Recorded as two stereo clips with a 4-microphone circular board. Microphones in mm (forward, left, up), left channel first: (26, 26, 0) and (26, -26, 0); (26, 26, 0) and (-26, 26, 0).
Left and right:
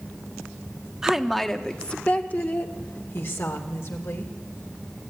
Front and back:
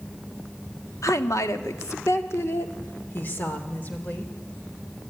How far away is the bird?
No bird in this recording.